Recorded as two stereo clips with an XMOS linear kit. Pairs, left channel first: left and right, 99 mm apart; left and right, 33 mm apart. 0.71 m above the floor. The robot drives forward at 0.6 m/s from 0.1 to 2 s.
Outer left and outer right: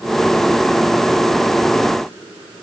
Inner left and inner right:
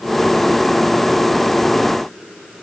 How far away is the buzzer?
I don't hear a buzzer.